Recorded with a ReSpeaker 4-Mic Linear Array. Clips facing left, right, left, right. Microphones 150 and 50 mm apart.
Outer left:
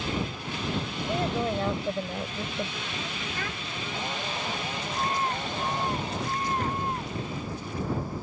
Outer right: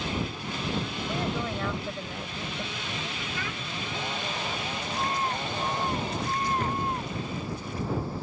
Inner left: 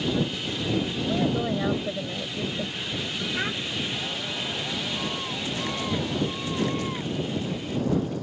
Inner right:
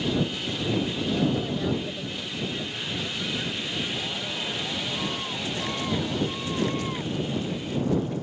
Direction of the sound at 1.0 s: 30° left (ahead or behind).